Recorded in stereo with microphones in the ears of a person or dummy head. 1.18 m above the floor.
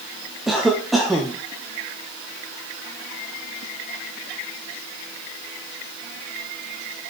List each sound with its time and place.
0.5 s a cough: centre (ahead or behind), 1.1 m